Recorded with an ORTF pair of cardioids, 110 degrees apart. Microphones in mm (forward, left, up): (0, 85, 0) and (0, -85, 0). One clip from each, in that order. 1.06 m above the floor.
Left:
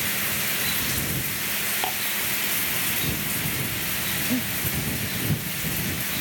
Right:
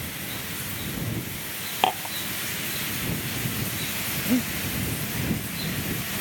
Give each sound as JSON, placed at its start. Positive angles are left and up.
{"t": 1.8, "sound": "dishes clattering", "azimuth_deg": -45}
{"t": 4.2, "sound": "breathing", "azimuth_deg": -20}